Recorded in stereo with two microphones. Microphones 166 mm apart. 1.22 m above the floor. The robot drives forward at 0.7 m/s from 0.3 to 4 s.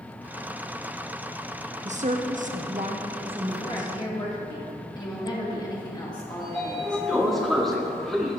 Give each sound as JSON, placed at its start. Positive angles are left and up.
{"t": 1.9, "sound": "a woman speaking", "side_deg": -45, "distance_m": 0.8}
{"t": 3.6, "sound": "a woman speaking", "side_deg": 25, "distance_m": 2.0}
{"t": 6.4, "sound": "a sliding door", "side_deg": 0, "distance_m": 1.2}